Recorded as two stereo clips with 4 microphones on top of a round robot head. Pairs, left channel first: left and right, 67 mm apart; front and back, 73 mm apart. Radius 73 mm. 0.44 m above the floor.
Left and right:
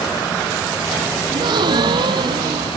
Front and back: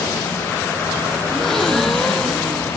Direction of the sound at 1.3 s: 90° right.